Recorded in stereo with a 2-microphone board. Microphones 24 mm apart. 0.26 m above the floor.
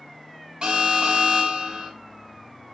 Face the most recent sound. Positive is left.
turn(degrees=-35)  # may be behind; listen again after turning